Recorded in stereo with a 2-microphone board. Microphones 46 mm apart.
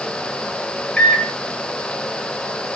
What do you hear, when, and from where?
1.0 s a microwave: 25° left (ahead or behind), 1.0 m